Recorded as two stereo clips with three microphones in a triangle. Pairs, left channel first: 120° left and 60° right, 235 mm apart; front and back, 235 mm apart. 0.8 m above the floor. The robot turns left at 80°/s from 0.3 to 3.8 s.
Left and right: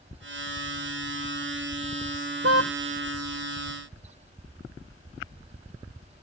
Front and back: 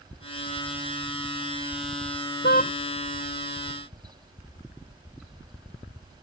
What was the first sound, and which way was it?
A car horn, 40° right.